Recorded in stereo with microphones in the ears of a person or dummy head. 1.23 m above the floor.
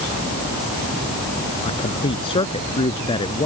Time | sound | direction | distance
1.6 | a man speaking | 25° left (ahead or behind) | ?